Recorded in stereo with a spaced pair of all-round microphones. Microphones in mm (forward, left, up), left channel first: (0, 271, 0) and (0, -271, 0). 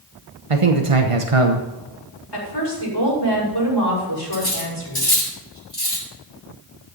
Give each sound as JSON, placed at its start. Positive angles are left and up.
{"t": 0.5, "sound": "a man speaking", "side_deg": -70, "distance_m": 1.2}
{"t": 2.3, "sound": "a woman speaking", "side_deg": 45, "distance_m": 6.0}
{"t": 4.3, "sound": "cutlery clinking", "side_deg": 40, "distance_m": 5.0}